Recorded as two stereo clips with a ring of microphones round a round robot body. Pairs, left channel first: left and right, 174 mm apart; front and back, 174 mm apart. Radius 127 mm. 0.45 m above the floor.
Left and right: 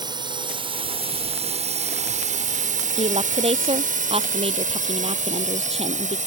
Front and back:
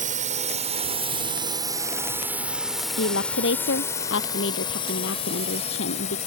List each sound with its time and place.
0.0 s a drone: 155° right; by 6.3 s 50° right
3.0 s a woman speaking: 35° right